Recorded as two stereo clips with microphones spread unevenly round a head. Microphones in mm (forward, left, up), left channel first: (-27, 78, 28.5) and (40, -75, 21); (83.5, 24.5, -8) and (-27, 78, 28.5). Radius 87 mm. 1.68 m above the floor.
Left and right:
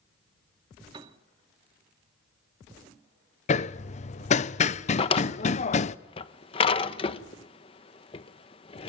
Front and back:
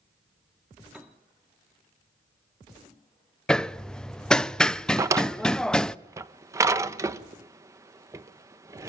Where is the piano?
130° right, 1.9 m.